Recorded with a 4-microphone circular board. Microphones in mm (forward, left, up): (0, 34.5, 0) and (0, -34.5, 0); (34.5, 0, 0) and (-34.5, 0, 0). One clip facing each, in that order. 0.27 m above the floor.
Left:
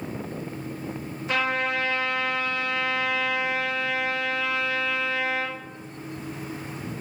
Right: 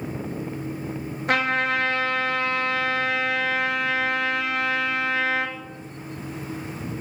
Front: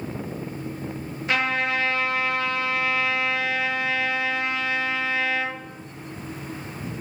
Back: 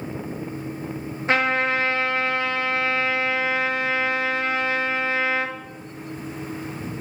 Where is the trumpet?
120° right, 1.6 m.